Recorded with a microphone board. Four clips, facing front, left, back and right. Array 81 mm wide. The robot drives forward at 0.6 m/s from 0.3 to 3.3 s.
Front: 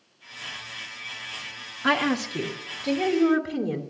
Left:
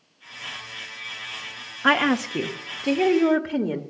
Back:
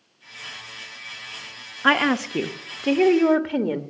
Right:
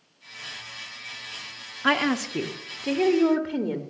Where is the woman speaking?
145° left, 0.7 m; by 3.8 s 170° left, 1.3 m.